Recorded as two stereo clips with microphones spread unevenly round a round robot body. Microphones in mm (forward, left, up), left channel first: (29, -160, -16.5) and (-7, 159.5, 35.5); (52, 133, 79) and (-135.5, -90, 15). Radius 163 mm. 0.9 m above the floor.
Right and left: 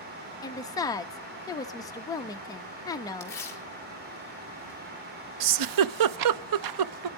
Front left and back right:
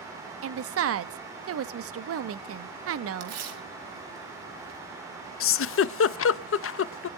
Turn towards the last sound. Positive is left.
turn(degrees=95)